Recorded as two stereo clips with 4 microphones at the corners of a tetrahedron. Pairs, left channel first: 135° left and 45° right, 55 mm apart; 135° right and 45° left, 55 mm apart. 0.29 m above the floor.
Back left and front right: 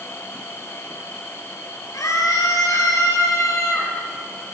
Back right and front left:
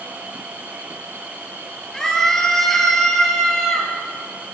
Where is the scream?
145° left, 7.5 m; by 3.9 s 140° left, 9.5 m.